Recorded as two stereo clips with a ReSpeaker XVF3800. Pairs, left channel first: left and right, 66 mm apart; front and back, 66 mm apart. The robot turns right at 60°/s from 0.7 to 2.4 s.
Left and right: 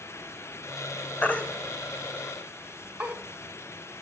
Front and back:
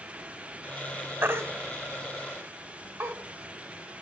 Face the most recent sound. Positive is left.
turn(degrees=-150)